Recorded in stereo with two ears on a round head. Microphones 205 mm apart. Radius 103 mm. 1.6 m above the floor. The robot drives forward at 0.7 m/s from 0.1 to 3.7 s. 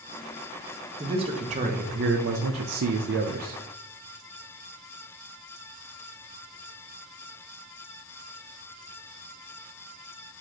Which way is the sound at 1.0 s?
25° right (ahead or behind).